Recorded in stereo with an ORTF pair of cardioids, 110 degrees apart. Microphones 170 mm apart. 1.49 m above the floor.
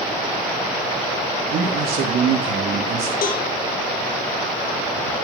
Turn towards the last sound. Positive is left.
turn(degrees=55)